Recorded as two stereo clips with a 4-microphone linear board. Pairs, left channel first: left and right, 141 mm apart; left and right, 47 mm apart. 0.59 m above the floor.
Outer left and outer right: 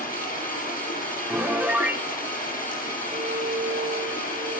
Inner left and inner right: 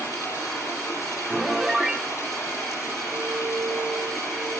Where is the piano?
10° right (ahead or behind), 1.1 m.